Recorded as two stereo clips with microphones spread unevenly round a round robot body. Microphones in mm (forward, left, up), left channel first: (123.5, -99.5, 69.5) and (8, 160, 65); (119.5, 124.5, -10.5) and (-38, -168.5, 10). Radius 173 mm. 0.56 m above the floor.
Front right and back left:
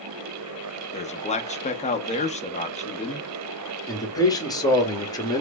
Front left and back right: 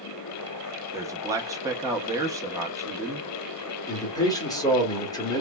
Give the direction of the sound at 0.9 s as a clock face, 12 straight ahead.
1 o'clock.